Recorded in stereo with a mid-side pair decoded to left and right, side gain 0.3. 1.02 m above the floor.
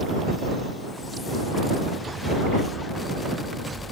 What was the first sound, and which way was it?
Only background noise.